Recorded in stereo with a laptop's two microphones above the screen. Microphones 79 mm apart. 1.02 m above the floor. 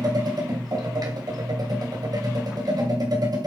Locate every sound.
0.0 s a machine running: 55° right (ahead or behind), 1.7 m